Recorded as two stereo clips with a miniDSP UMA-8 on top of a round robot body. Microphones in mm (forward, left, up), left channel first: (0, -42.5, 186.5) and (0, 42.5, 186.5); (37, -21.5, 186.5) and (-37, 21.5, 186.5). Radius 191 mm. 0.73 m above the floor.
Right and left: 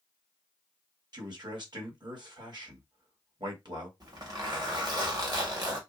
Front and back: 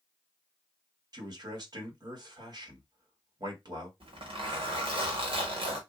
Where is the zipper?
135° left, 1.1 m.